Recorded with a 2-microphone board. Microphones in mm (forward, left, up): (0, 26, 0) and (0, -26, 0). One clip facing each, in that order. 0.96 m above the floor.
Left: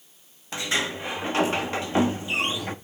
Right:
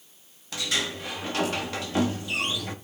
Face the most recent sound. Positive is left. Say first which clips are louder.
# left 3 dB
turn(degrees=25)  # may be behind; listen again after turning